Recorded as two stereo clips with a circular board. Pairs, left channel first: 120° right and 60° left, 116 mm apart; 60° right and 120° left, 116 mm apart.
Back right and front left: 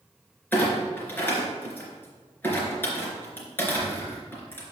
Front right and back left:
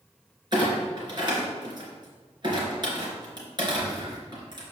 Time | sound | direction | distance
0.5 | a clunk | 165° left | 2.5 m